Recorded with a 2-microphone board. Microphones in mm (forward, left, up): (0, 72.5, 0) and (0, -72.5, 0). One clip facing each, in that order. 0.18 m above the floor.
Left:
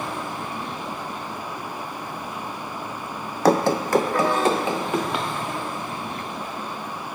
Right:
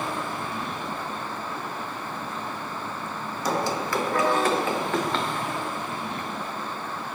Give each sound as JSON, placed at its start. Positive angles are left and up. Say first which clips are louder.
{"t": 3.5, "sound": "running footsteps", "louder": "left 8 dB", "side_deg": 75, "distance_m": 0.5}